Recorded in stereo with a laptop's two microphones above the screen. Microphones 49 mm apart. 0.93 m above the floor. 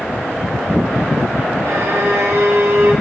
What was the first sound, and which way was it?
A violin, 85° right.